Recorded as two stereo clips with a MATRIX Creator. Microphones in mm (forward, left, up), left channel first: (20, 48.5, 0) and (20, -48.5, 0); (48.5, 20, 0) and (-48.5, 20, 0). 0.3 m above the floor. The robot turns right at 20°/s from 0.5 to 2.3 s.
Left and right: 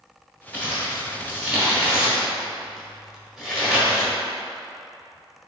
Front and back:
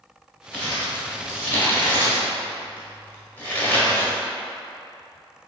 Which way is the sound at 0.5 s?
45° right.